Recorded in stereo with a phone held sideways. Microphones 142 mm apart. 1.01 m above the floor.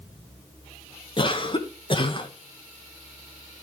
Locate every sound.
1.2 s a cough: 35° left (ahead or behind), 0.8 m